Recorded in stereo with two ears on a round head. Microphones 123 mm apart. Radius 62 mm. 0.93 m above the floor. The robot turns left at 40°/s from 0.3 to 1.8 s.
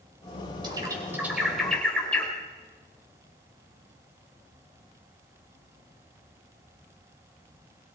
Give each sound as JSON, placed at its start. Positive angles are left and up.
{"t": 0.6, "sound": "a bird", "side_deg": -35, "distance_m": 4.5}